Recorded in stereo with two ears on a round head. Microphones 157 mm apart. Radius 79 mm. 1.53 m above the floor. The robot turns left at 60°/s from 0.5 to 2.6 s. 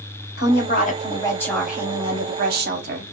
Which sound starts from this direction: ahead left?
A woman speaking, at 0.4 s.